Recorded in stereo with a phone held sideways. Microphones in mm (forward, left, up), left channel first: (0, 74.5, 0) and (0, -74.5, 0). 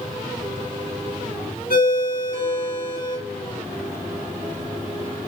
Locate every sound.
1.7 s a ringtone: 85° left, 2.5 m